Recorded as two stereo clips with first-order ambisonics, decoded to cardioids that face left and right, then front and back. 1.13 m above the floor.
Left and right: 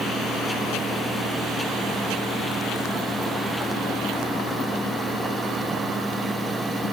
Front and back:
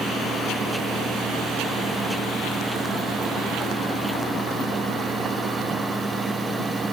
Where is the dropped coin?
I don't hear a dropped coin.